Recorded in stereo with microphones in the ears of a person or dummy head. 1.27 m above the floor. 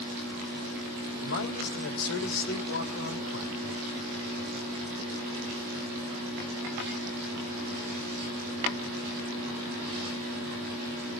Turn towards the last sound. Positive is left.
turn(degrees=80)